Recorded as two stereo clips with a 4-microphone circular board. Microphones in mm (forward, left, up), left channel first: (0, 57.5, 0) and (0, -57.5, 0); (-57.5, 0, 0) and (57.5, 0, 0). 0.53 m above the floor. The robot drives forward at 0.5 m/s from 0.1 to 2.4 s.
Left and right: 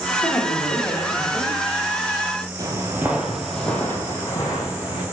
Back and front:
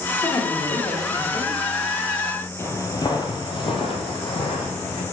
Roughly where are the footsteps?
Behind right.